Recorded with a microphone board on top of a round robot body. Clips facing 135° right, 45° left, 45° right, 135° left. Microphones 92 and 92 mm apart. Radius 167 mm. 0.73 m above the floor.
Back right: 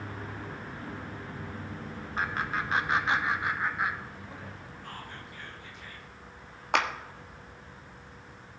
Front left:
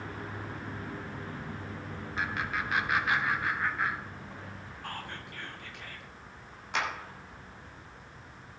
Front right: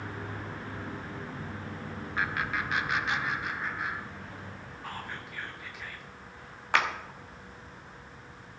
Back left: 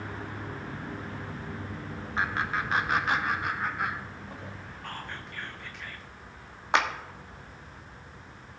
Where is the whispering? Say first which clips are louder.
Front left 4 dB, even; 40° left, 1.9 m.